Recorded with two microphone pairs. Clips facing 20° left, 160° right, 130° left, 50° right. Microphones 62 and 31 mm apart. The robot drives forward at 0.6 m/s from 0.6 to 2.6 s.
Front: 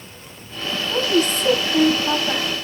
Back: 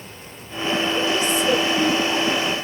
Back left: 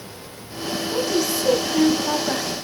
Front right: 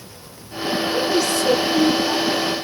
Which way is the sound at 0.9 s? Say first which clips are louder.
Front 2 dB, front right 1 dB; 50° left.